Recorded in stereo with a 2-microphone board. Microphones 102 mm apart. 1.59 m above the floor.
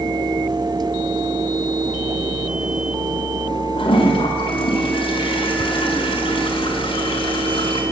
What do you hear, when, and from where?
3.8 s a toilet flushing: 65° left (ahead or behind), 3.5 m